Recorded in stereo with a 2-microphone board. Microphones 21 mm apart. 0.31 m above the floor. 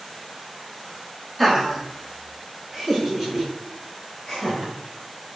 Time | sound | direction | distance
1.4 | laughter | 10° right (ahead or behind) | 1.4 m